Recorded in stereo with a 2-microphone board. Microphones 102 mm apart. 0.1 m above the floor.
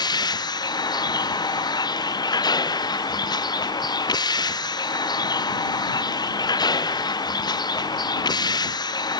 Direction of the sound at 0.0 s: 40° left (ahead or behind).